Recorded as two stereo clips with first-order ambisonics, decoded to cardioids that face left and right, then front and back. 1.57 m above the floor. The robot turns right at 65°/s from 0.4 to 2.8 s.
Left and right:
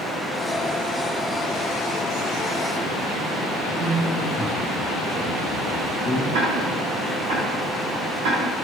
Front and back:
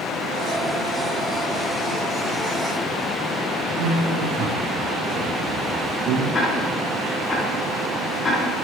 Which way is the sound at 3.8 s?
170° right.